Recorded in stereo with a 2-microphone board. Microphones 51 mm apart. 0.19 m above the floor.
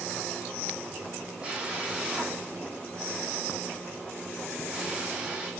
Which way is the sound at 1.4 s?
20° right (ahead or behind).